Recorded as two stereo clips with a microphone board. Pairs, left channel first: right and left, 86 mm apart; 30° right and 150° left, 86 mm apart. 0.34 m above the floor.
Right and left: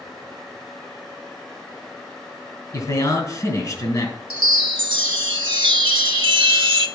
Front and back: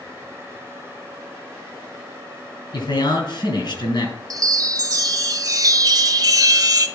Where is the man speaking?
50° right, 3 m.